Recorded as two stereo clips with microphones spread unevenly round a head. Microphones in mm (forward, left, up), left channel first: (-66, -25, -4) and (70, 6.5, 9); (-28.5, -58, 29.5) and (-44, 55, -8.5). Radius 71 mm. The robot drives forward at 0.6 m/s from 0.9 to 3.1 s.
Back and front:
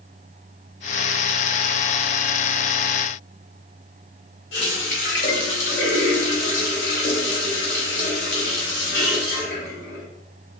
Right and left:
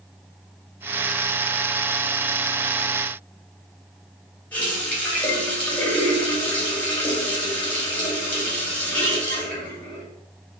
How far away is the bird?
I don't hear a bird.